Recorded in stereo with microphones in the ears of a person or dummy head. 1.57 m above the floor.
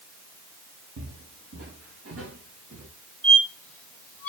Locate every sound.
1.0 s footsteps: 60° right (ahead or behind), 4.5 m; by 2.9 s 70° right (ahead or behind), 6 m
3.2 s a squeak: 10° left (ahead or behind), 2.5 m